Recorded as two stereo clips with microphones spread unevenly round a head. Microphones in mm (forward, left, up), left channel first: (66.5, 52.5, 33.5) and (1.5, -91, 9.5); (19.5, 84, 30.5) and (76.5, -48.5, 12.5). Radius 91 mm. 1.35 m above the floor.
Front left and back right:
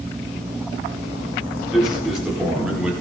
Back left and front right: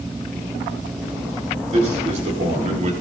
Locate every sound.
1.7 s a man speaking: 25° right, 5 m; by 2.9 s 30° right, 4 m